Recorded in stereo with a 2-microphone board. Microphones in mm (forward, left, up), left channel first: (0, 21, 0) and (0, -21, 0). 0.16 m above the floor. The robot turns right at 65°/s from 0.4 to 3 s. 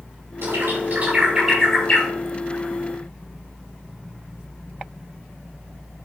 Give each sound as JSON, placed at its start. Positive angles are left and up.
{"t": 0.4, "sound": "a bird", "side_deg": -80, "distance_m": 6.0}